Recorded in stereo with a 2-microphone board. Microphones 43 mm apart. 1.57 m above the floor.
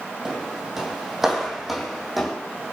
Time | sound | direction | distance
0.2 | footsteps | 15° right (ahead or behind) | 4 m